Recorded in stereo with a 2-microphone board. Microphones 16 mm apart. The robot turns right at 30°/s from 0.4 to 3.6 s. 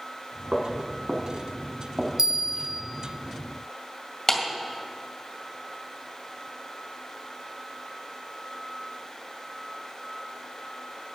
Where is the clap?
25° left (ahead or behind), 2 m.